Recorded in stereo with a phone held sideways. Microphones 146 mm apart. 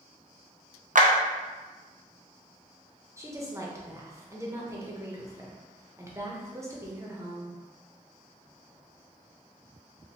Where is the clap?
60° right (ahead or behind), 0.5 m.